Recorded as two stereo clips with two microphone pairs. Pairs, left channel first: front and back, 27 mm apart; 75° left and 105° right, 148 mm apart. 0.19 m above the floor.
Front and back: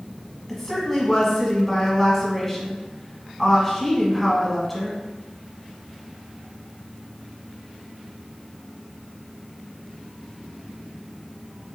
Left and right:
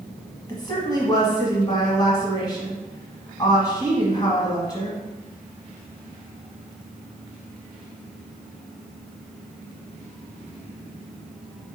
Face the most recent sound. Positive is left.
turn(degrees=75)